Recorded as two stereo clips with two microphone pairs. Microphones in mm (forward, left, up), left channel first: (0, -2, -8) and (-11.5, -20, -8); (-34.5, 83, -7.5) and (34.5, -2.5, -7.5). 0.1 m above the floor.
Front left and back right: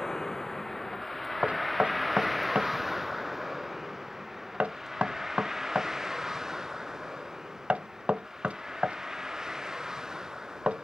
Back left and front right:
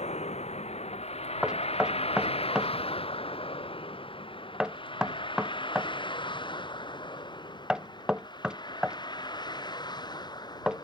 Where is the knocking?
135° right.